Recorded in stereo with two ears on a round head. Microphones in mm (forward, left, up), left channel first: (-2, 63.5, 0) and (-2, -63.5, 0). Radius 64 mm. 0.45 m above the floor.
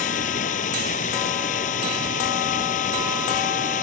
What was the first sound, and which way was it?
Running water, 60° left (ahead or behind).